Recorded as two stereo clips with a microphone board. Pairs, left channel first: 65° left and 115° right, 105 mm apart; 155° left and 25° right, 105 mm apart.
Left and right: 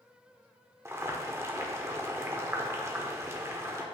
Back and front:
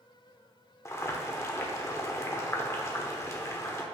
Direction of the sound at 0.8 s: 160° right.